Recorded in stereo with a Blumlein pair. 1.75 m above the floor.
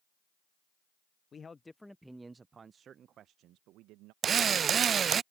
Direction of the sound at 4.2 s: 25° right.